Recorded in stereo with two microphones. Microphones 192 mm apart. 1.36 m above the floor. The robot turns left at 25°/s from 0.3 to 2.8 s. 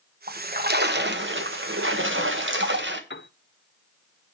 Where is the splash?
45° right, 1.4 m; by 3.0 s 110° right, 1.4 m.